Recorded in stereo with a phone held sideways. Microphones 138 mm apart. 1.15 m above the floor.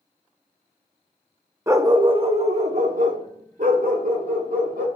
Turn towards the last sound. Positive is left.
turn(degrees=-80)